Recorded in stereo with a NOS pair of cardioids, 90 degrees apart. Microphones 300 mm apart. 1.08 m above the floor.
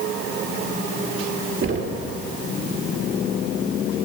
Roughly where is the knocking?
Ahead right.